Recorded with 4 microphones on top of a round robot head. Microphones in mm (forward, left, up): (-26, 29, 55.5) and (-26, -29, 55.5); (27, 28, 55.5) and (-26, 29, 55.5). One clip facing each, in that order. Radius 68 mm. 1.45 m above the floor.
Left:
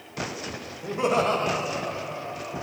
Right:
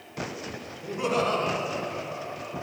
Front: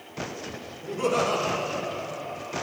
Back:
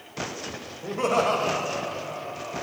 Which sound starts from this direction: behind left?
Laughter, at 0.8 s.